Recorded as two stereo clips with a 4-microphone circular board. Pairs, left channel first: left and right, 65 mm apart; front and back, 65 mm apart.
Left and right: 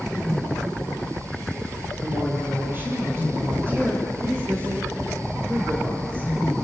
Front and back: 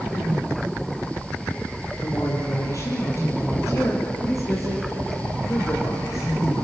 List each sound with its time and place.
2.0 s a woman speaking: 35° right, 5 m